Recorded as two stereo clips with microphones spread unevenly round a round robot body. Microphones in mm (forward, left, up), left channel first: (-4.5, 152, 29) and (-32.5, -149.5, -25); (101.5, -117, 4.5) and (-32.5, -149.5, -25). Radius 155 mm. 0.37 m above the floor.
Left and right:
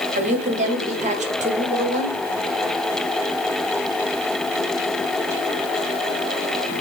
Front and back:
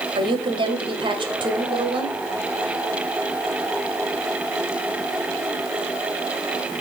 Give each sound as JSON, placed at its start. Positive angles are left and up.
{"t": 0.1, "sound": "a woman speaking", "azimuth_deg": -145, "distance_m": 1.7}